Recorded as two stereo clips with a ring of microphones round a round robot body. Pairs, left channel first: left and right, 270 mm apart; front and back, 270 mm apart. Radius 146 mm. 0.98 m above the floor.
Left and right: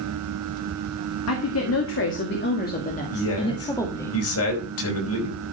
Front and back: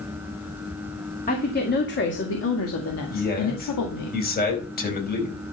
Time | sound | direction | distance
1.3 | a woman speaking | 60° left | 2 m
3.1 | a man speaking | 55° left | 4.5 m